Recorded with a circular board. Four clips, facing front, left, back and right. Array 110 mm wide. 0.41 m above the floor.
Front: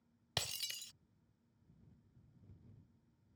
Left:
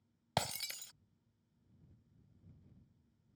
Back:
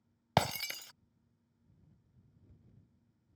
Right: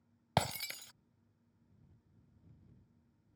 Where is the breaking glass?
165° right.